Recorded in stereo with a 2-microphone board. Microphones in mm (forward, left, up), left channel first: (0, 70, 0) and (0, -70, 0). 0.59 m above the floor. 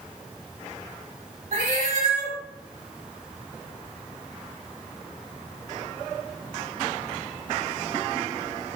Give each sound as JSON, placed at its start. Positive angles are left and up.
{"t": 1.5, "sound": "a cat meowing", "side_deg": -70, "distance_m": 0.9}